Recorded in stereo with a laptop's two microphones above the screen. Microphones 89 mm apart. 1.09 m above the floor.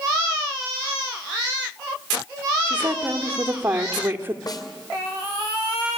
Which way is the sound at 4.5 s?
45° left (ahead or behind).